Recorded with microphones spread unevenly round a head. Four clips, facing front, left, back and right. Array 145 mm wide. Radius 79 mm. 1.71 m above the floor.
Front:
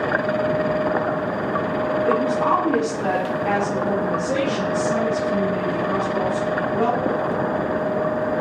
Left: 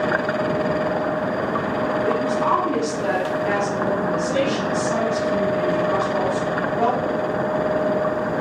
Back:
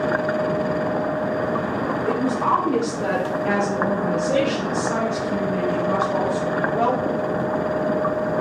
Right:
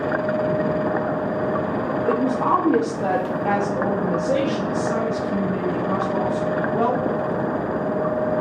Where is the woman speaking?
50° right, 1.2 m; by 7.0 s 135° right, 4 m.